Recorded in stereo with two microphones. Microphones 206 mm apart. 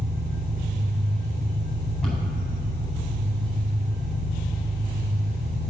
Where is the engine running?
40° right (ahead or behind), 1.2 m.